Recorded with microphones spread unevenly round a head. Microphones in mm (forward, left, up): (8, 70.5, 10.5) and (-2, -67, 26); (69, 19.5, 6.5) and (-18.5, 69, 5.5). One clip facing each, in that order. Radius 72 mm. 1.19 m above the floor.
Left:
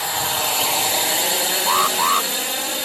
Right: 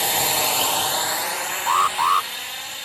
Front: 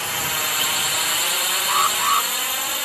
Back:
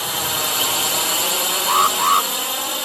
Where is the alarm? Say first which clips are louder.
Right 1 dB, back 4 dB; 160° left.